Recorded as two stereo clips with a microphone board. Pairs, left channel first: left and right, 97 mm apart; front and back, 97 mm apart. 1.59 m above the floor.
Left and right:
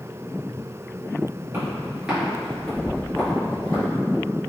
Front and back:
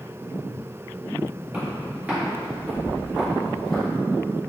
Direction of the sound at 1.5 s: 125° right.